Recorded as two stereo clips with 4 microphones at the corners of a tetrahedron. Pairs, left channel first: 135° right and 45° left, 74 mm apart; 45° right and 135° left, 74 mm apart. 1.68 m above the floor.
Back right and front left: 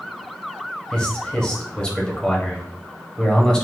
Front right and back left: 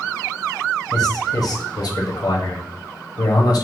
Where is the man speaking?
60° right, 0.7 m.